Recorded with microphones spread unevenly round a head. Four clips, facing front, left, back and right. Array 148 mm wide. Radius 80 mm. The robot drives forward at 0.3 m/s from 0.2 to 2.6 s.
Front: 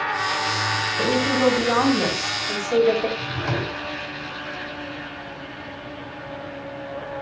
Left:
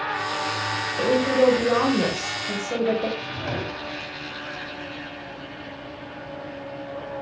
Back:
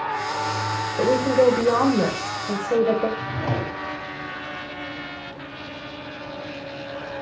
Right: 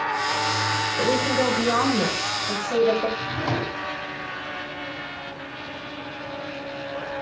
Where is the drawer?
170° right, 3 m.